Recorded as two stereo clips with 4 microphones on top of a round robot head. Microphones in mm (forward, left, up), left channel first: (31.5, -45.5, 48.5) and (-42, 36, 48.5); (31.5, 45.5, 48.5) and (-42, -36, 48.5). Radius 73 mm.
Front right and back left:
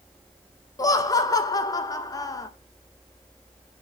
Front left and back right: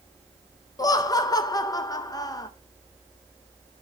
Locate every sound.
0.8 s laughter: straight ahead, 0.7 m